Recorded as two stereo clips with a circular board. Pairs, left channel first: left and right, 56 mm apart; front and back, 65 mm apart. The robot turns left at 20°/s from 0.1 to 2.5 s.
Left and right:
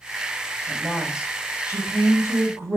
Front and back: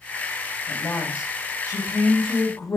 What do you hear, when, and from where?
0.7 s a woman speaking: 5° left, 4 m; by 2.8 s 30° right, 4 m